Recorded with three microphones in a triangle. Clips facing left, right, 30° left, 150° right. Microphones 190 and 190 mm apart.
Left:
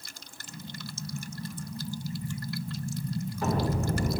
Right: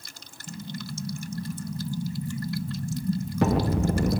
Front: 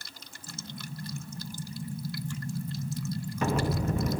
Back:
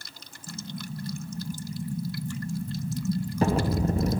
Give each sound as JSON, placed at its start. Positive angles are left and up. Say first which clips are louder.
{"t": 0.5, "sound": "an explosion", "louder": "right 6 dB, back 5 dB", "azimuth_deg": -95, "distance_m": 0.8}